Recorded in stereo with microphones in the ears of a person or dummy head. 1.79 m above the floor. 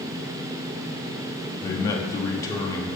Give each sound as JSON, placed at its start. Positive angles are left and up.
{"t": 1.6, "sound": "a man speaking", "side_deg": 20, "distance_m": 1.0}